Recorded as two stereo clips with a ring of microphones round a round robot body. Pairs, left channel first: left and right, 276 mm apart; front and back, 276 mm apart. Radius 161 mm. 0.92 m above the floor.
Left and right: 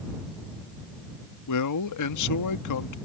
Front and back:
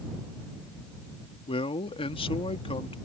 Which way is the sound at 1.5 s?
75° left.